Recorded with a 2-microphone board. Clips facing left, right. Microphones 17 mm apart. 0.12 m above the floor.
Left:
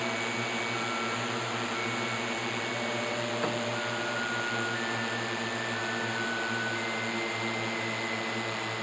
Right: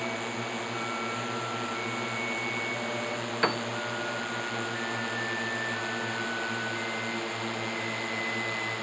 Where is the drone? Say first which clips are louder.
Left 2 dB; 20° left (ahead or behind); by 8.8 s 5° left (ahead or behind).